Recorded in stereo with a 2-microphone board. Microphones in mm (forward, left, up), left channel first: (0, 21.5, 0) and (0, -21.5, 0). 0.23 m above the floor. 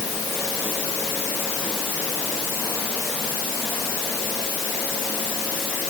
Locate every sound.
Only background noise.